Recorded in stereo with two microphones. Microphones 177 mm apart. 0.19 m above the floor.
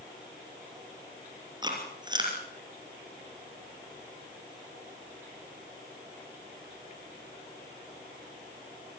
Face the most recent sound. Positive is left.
turn(degrees=-25)  # may be behind; listen again after turning